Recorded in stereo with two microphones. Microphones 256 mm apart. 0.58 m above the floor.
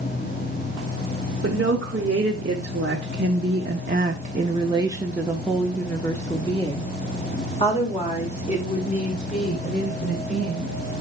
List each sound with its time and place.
1.4 s a woman speaking: 50° right (ahead or behind), 2.0 m; by 10.8 s 35° left (ahead or behind), 3.5 m